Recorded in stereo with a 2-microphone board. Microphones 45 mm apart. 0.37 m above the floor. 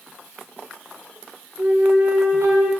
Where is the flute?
75° right (ahead or behind), 2.5 m.